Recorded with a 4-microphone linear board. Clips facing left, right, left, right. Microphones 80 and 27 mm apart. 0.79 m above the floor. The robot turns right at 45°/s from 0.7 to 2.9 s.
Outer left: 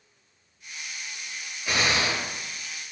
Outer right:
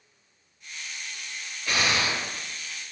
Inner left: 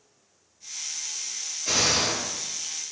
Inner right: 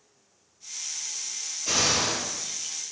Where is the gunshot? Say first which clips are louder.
Outer left 1 dB, inner left 1 dB; 15° left, 4 m; by 2.7 s 60° left, 4 m.